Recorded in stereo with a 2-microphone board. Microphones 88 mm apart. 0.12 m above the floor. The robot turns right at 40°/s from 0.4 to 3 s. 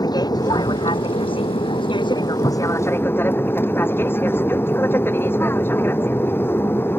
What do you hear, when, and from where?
0.0 s an aircraft: 50° left; by 7.0 s 155° left